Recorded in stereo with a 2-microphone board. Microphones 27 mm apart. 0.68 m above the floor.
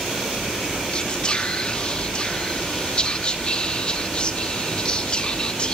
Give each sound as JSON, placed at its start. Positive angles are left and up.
{"t": 0.9, "sound": "whispering", "side_deg": 35, "distance_m": 1.1}